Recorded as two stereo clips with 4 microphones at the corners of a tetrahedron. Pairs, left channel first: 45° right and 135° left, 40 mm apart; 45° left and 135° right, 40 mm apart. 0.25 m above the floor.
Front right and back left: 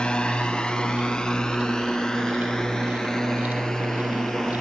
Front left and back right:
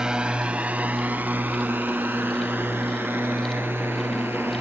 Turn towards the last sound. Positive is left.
turn(degrees=-125)